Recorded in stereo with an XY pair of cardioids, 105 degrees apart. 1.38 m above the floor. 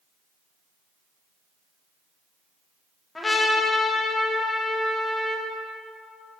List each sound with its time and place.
3.1 s a trumpet: 20° left, 1.3 m